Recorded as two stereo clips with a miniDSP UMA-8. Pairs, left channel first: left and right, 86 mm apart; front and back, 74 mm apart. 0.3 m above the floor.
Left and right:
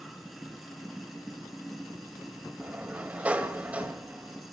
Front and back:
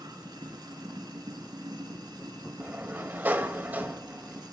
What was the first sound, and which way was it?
Running water, straight behind.